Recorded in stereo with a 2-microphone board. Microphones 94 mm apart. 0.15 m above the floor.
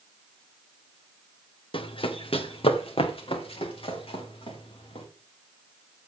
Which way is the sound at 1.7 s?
65° left (ahead or behind).